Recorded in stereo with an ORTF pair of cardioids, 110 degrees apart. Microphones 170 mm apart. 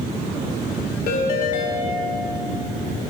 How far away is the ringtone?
About 1.9 m.